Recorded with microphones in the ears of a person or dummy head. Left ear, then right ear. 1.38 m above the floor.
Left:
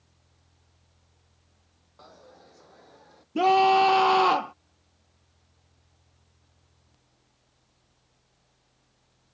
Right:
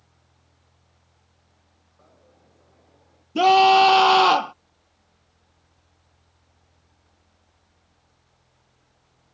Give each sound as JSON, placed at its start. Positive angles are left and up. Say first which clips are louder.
{"t": 2.0, "sound": "a dropped coin", "louder": "left 7 dB", "side_deg": 65}
{"t": 3.4, "sound": "a scream", "louder": "right 5 dB", "side_deg": -30}